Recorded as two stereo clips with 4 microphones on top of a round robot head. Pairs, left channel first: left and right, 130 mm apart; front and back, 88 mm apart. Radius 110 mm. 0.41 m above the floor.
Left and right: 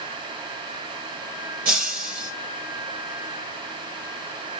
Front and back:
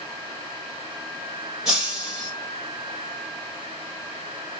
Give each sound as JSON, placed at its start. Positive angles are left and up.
{"t": 1.6, "sound": "breaking glass", "azimuth_deg": -95, "distance_m": 3.5}